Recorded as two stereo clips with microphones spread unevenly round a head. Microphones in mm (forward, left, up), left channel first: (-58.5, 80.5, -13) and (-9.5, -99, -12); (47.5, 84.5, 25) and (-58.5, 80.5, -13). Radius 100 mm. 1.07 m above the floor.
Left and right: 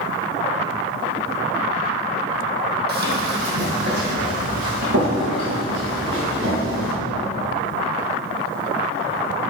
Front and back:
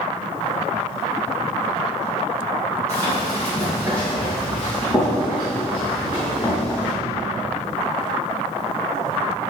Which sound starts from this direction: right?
Running footsteps, at 2.9 s.